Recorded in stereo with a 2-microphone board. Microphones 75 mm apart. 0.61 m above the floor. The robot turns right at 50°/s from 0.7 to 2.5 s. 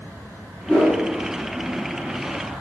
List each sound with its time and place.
0.7 s a whoosh: 10° left (ahead or behind), 1.6 m; by 1.0 s 5° right (ahead or behind), 1.6 m